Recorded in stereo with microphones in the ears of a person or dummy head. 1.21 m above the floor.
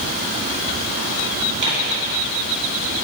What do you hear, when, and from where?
1.6 s tearing paper: 60° right (ahead or behind), 1.9 m